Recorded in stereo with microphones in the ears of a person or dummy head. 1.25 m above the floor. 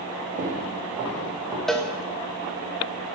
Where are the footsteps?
40° right (ahead or behind), 1.7 m; by 1.6 s 15° right (ahead or behind), 2.5 m.